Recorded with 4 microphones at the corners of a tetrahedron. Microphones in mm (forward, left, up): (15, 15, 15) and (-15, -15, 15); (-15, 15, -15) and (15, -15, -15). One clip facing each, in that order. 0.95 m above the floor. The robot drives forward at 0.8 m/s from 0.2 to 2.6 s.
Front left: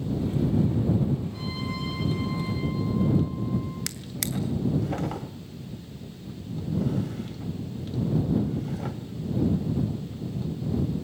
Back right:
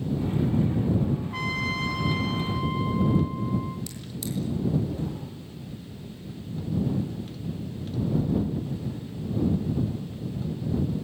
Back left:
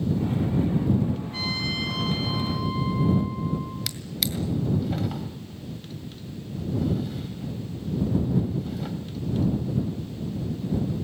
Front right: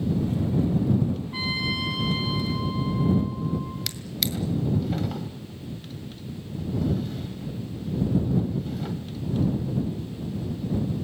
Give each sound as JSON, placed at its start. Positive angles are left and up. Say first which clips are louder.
{"t": 1.3, "sound": "a trumpet", "louder": "back right 5 dB, front right 1 dB", "azimuth_deg": -115, "distance_m": 2.5}
{"t": 3.9, "sound": "a drawer", "louder": "front left 1 dB, even", "azimuth_deg": 50, "distance_m": 1.8}